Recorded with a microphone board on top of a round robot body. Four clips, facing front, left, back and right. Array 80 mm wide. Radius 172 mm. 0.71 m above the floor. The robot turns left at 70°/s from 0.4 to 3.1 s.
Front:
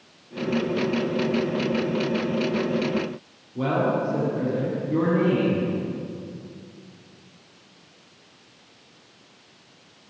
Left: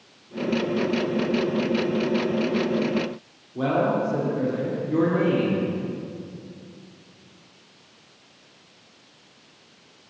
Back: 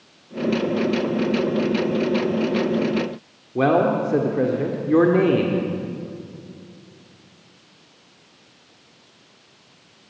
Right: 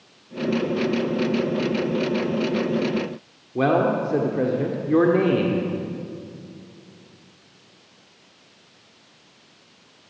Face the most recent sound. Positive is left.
turn(degrees=-150)